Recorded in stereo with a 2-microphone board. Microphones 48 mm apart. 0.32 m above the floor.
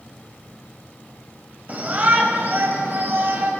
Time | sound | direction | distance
1.7 | a shout | 35° right (ahead or behind) | 1.9 m